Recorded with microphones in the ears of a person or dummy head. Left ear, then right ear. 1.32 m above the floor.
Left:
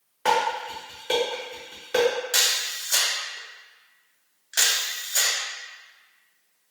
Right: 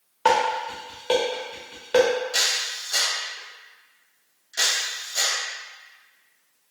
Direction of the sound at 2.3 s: 45° left (ahead or behind).